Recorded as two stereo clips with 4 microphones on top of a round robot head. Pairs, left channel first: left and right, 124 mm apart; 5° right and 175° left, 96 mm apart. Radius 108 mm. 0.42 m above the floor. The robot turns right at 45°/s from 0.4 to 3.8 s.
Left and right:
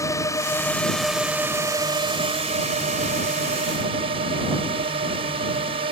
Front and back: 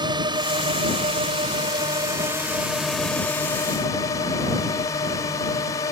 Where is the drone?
150° left; by 5.9 s 55° right.